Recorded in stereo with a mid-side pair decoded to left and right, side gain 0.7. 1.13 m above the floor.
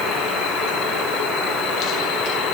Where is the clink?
I don't hear a clink.